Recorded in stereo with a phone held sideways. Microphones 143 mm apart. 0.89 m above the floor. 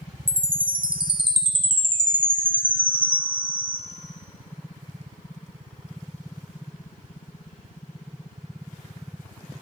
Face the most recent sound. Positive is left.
turn(degrees=-35)  # may be behind; listen again after turning